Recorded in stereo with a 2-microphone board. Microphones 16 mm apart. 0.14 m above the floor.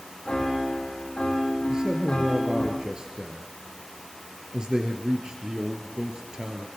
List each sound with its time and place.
0.2 s a piano: 55° left (ahead or behind), 6 m
1.7 s a man speaking: 45° right (ahead or behind), 2.5 m